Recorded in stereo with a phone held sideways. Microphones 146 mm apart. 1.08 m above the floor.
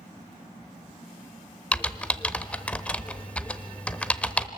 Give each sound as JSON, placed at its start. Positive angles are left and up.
{"t": 1.7, "sound": "typing on a keyboard", "side_deg": 10, "distance_m": 0.9}